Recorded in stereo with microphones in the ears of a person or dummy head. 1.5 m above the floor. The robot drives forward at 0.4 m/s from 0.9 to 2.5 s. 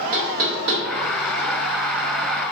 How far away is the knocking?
About 0.6 m.